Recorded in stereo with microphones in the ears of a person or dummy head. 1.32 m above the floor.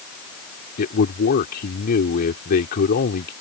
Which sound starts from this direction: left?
A man speaking, at 0.8 s.